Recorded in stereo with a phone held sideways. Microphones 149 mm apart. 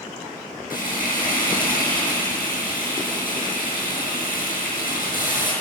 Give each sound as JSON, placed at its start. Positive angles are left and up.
{"t": 0.7, "sound": "frying", "side_deg": 75, "distance_m": 7.5}